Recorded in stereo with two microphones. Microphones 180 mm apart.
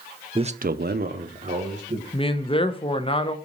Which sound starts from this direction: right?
A man speaking, at 0.3 s.